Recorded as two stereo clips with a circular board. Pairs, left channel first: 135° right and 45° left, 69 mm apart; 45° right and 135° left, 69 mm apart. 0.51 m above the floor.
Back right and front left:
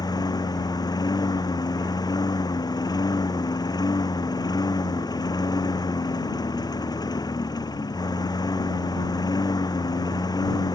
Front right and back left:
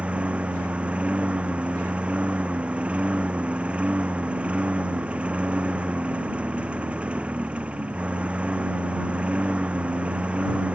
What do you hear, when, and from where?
0.0 s a lawn mower: 150° right